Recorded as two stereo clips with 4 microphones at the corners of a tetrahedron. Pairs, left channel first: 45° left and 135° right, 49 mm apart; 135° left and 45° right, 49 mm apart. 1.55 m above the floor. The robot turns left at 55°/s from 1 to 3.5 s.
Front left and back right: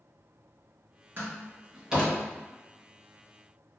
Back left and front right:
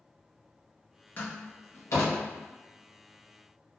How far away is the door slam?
About 1.3 m.